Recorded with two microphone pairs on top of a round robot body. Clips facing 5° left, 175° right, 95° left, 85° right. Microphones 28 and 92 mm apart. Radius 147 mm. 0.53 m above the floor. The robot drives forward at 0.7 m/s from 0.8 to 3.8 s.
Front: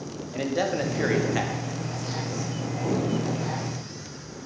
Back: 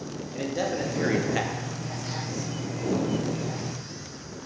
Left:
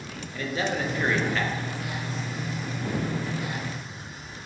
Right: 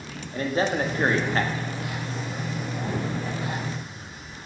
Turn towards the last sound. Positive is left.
turn(degrees=-155)